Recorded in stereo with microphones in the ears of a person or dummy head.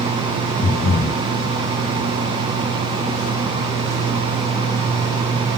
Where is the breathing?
45° left (ahead or behind), 0.8 m.